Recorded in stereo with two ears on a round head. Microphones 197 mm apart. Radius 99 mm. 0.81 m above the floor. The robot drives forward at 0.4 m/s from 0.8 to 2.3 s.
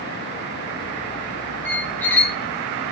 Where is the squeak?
10° left (ahead or behind), 0.6 m.